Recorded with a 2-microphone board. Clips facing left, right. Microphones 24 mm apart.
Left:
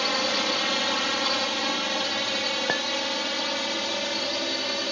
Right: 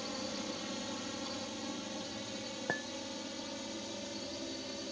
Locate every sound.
0.0 s a drone: 70° left (ahead or behind); by 4.9 s 65° left (ahead or behind)
2.7 s a clink: 40° left (ahead or behind)